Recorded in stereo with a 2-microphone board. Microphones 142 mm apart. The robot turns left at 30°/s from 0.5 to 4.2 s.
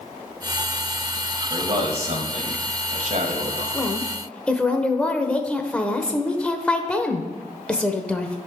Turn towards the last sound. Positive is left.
turn(degrees=10)  # may be behind; listen again after turning